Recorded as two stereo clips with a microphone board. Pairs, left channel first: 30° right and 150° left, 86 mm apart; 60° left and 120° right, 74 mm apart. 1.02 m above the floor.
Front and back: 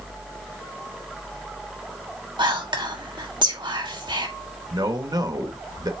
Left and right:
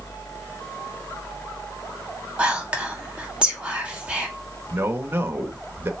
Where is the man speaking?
175° right, 1.5 m.